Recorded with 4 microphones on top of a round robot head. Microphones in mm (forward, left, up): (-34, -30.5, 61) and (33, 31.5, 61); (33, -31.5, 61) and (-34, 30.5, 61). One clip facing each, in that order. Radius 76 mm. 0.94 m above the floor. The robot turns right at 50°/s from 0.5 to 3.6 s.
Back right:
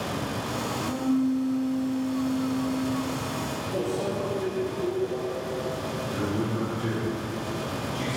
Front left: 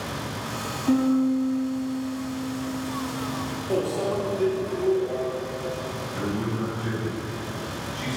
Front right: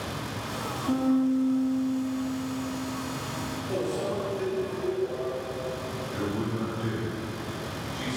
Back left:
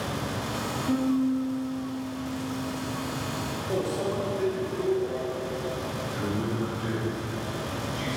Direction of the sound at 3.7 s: 60° left.